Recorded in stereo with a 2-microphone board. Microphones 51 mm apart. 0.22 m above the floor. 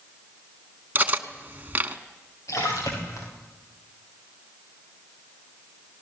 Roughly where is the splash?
Left.